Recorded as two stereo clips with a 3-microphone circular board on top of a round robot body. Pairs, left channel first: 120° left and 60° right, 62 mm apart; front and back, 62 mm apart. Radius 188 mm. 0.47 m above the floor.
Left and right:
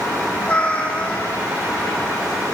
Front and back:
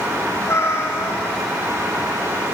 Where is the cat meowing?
45° left, 5 m.